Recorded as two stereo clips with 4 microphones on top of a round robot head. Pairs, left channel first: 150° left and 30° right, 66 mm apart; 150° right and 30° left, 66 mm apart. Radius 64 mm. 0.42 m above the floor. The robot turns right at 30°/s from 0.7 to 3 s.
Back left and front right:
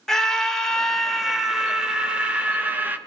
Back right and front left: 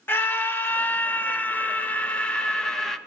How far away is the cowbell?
No cowbell in this recording.